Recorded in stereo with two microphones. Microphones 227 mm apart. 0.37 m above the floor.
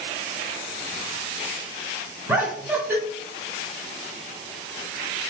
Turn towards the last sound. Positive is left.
turn(degrees=-10)  # may be behind; listen again after turning